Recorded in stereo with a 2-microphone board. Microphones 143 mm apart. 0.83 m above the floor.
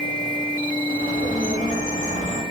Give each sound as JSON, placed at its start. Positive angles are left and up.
{"t": 0.9, "sound": "a bird", "side_deg": -80, "distance_m": 5.0}